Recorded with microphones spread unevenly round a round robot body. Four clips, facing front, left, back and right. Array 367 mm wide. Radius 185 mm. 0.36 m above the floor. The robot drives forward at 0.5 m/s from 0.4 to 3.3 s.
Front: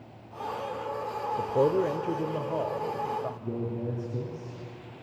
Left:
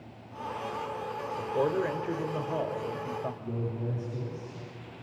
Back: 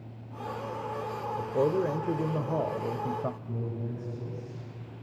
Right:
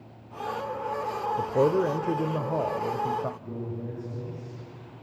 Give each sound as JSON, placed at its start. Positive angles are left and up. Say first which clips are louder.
{"t": 1.4, "sound": "a man speaking", "louder": "right 5 dB, front 2 dB", "azimuth_deg": -80, "distance_m": 0.9}
{"t": 3.4, "sound": "a man speaking", "louder": "left 1 dB, front 4 dB", "azimuth_deg": 15, "distance_m": 9.5}